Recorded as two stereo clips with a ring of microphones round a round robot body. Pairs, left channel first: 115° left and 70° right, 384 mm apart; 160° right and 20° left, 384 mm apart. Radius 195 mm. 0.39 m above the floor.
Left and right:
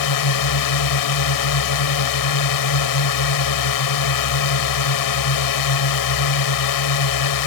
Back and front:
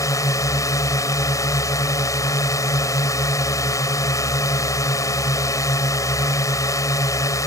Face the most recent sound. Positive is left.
turn(degrees=120)